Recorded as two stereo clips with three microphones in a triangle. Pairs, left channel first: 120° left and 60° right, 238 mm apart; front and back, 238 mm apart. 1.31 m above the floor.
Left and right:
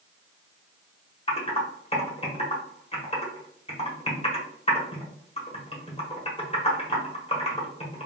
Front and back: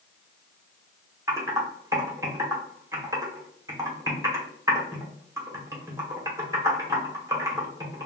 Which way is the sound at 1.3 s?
120° left.